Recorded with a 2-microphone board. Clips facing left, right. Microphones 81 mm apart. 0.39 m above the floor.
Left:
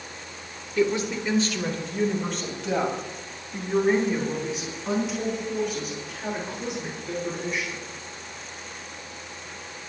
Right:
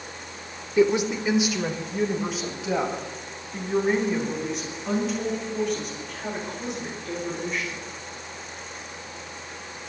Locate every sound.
0.8 s a woman speaking: 20° right (ahead or behind), 1.3 m; by 7.8 s 5° left (ahead or behind), 7.5 m